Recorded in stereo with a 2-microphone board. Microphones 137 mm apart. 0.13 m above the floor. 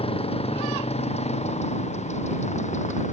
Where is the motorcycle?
45° left (ahead or behind); by 3.1 s 60° left (ahead or behind).